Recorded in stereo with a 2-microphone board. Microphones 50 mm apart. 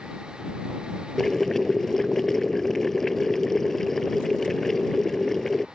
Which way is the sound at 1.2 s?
10° left (ahead or behind).